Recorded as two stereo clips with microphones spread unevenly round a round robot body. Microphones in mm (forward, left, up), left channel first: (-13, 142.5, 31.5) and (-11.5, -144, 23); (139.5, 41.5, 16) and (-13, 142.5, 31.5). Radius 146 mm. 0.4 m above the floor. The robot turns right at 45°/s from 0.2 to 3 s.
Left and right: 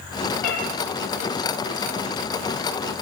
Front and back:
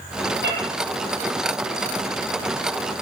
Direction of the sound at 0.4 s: 120° left.